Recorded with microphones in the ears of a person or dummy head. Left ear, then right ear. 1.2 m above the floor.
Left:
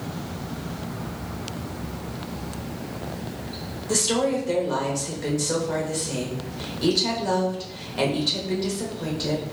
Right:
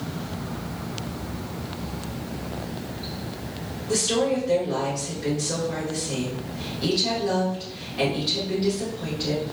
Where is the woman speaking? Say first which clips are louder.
Even; 35° left (ahead or behind), 1.3 m.